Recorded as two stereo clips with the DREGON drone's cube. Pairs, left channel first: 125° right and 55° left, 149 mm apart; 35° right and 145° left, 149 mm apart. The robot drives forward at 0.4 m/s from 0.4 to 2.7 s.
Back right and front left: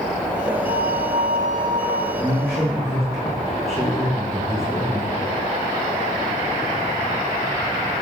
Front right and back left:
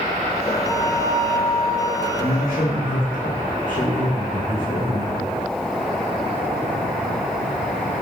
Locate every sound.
0.7 s a flute: 45° left, 1.4 m; by 2.0 s 65° left, 1.1 m
2.1 s a man speaking: 50° right, 4 m; by 5.2 s 55° right, 3.5 m